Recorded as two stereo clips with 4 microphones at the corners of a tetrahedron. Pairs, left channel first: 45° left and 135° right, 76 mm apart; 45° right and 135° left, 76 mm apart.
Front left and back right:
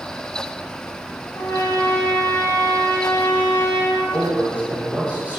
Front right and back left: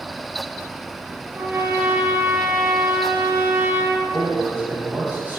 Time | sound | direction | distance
1.3 | a trumpet | 85° left | 1.2 m
4.1 | a man speaking | 175° left | 1.4 m